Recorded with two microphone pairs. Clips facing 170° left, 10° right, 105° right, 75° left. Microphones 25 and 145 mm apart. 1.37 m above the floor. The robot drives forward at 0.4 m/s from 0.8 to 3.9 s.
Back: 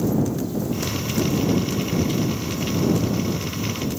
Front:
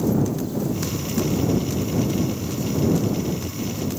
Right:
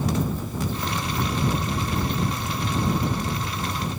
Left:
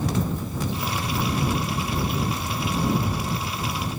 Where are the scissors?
No scissors in this recording.